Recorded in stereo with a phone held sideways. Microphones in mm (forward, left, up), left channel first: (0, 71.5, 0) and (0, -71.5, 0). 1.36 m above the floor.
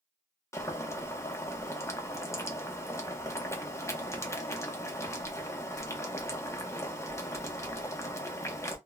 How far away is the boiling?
About 0.6 m.